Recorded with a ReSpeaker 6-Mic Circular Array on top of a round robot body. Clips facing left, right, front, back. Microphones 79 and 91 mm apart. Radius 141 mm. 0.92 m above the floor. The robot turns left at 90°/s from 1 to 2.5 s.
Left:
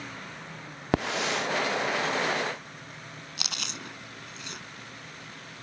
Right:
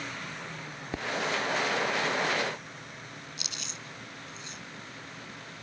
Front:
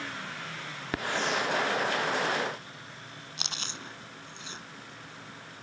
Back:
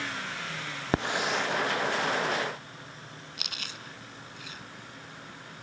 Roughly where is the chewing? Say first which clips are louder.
Left 4 dB, front 4 dB; ahead left.